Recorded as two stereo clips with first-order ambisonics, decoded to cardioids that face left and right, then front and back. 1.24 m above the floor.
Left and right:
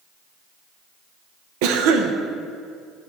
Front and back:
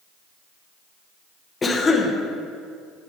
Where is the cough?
75° right, 0.8 m.